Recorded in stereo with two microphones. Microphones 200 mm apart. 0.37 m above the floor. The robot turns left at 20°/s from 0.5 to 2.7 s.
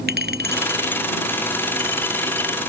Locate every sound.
0.1 s a clink: 60° right; by 2.6 s 100° right